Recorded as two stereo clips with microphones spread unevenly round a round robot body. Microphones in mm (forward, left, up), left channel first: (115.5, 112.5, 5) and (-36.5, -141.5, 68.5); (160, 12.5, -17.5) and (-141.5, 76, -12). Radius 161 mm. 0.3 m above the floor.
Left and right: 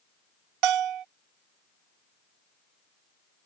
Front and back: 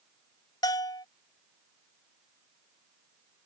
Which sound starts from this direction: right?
A bell, at 0.6 s.